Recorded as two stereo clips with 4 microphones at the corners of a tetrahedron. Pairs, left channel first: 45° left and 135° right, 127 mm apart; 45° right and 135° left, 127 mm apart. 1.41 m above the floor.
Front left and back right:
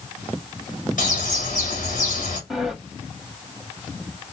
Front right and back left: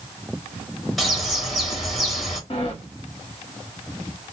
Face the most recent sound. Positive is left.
turn(degrees=-50)